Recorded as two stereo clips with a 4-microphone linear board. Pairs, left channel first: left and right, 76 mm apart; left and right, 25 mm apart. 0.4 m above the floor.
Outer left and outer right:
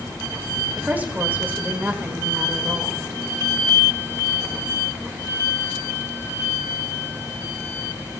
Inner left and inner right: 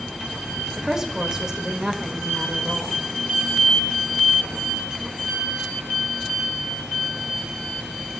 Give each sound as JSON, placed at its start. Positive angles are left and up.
{"t": 0.8, "sound": "a woman speaking", "side_deg": -25, "distance_m": 1.8}